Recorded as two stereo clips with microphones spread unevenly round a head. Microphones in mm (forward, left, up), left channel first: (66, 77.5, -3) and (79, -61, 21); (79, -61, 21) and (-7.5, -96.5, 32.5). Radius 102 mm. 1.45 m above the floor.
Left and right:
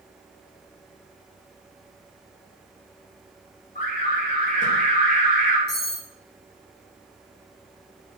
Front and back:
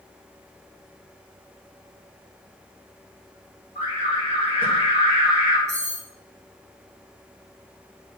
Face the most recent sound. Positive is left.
turn(degrees=95)